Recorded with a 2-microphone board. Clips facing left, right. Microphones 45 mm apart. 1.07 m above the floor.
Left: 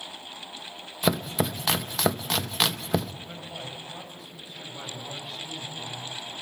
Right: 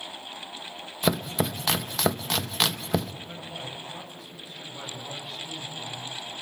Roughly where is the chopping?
Centre.